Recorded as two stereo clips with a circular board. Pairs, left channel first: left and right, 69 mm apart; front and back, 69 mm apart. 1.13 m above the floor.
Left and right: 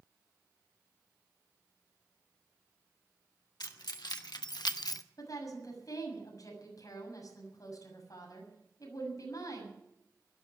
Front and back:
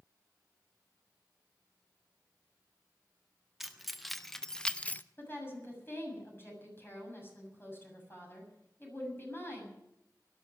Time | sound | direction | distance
3.6 | keys jangling | 95° left | 1.6 m
5.2 | a woman speaking | 60° left | 7 m